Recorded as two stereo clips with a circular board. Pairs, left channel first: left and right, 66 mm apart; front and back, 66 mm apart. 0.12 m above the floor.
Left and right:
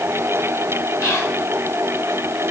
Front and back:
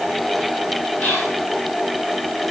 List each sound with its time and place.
1.0 s whispering: 60° left, 3.5 m